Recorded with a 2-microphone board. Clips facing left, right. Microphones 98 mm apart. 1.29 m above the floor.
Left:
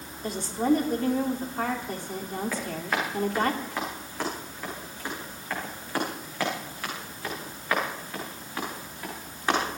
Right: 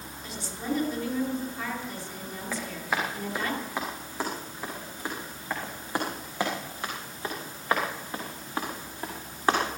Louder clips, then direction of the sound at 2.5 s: Right 3 dB; 5° right (ahead or behind).